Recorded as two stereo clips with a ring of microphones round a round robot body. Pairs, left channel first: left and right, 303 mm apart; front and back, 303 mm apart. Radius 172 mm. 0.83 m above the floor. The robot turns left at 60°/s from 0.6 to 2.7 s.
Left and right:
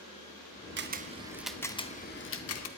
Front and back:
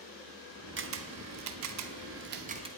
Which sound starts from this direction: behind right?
A camera shutter, at 0.8 s.